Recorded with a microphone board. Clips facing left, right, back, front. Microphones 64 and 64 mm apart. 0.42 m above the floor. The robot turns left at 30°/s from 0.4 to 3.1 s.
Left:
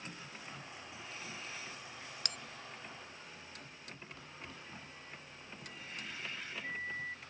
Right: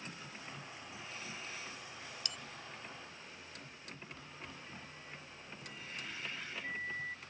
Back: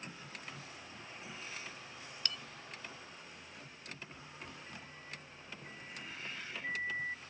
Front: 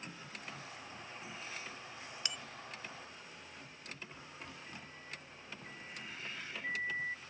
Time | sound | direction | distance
2.2 | a bell | 75° left | ?